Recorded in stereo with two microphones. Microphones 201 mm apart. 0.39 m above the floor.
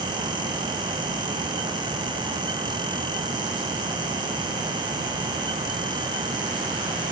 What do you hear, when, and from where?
Only background noise.